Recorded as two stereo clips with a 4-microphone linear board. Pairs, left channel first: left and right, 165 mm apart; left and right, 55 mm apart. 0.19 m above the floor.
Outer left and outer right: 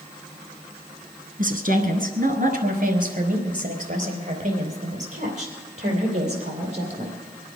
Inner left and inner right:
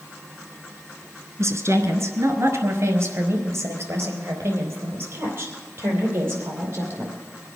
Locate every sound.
1.4 s a woman speaking: 60° right (ahead or behind), 2 m; by 7.2 s 40° right (ahead or behind), 5.5 m